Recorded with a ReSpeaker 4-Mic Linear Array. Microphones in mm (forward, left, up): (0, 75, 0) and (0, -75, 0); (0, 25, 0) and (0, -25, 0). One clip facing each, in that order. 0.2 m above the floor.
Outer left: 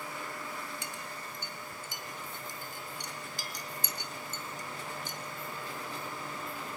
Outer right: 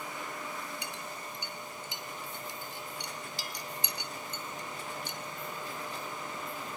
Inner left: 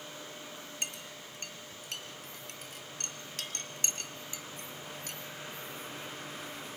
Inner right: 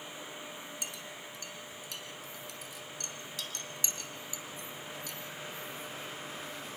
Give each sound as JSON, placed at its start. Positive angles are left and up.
{"t": 0.8, "sound": "a clink", "side_deg": 45, "distance_m": 2.0}